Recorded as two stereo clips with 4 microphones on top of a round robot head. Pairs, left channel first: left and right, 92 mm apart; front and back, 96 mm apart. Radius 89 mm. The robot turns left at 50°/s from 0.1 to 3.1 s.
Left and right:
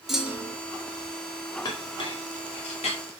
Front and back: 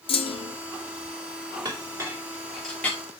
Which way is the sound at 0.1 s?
5° right.